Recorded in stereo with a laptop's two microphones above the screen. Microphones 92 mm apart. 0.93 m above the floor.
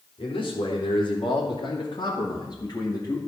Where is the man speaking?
75° left (ahead or behind), 3 m; by 3.2 s 35° left (ahead or behind), 2.0 m.